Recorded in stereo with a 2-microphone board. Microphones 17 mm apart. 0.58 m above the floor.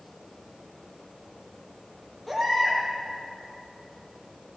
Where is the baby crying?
15° left (ahead or behind), 8 m.